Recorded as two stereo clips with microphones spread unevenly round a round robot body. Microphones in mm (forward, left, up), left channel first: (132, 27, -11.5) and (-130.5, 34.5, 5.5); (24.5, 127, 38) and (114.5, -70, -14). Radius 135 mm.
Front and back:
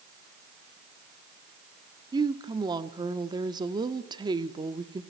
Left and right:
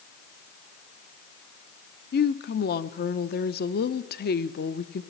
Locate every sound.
2.1 s a woman speaking: 110° left, 0.9 m